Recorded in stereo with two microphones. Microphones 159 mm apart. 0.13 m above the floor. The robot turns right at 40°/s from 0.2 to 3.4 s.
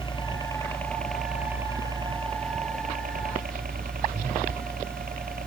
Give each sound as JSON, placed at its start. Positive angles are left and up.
{"t": 0.0, "sound": "a helicopter", "side_deg": 30}